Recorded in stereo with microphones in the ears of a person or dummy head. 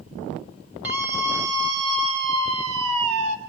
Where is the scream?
10° right (ahead or behind), 6 m; by 3.4 s 40° right (ahead or behind), 6 m.